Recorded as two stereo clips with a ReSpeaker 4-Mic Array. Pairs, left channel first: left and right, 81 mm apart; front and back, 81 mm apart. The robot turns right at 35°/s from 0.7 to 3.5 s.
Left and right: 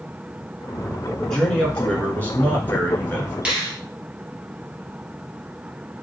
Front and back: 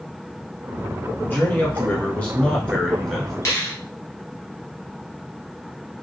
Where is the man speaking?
10° left, 1.2 m; by 3.4 s 85° left, 1.2 m.